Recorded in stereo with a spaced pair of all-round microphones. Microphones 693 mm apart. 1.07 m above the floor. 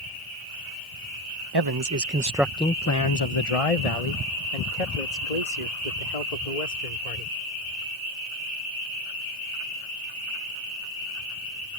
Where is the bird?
I don't hear a bird.